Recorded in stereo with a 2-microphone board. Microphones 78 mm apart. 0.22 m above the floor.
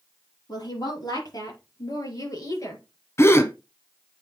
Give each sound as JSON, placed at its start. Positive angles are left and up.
{"t": 0.5, "sound": "a woman speaking", "side_deg": 60, "distance_m": 5.0}
{"t": 3.2, "sound": "a gasp", "side_deg": 35, "distance_m": 0.7}